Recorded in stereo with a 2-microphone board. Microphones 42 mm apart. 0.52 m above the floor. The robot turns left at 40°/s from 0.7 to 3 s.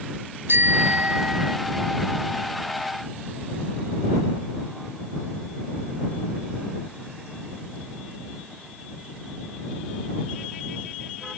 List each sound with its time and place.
0.5 s a bicycle bell: 115° right; by 1.6 s 150° right